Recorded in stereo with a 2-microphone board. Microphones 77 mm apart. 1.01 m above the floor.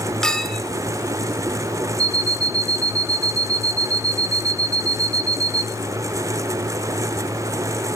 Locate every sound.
0.2 s a clink: 10° left (ahead or behind), 2.5 m
2.0 s an alarm clock: 50° right (ahead or behind), 1.4 m